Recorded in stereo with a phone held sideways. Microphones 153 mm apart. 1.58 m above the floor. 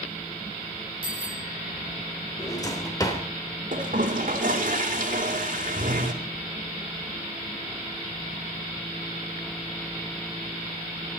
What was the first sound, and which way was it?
A bicycle bell, 65° left (ahead or behind).